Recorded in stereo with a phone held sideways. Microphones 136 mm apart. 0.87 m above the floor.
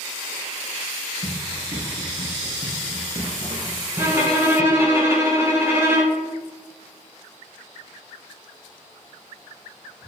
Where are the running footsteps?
70° right (ahead or behind), 3.5 m; by 4.8 s 40° right (ahead or behind), 1.2 m.